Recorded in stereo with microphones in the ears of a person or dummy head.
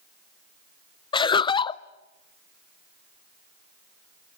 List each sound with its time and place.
1.1 s laughter: 30° left (ahead or behind), 0.6 m